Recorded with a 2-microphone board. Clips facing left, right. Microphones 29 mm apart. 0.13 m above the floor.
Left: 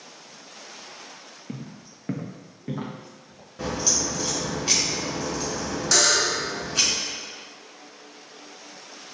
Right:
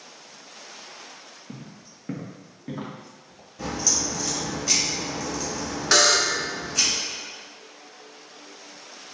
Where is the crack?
35° left (ahead or behind), 1.4 m.